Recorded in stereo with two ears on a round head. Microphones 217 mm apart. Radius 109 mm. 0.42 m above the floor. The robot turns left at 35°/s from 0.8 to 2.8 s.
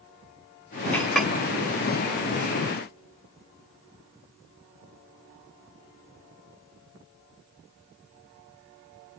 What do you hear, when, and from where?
0.9 s a clink: 5° left (ahead or behind), 1.1 m; by 1.3 s 5° right (ahead or behind), 1.1 m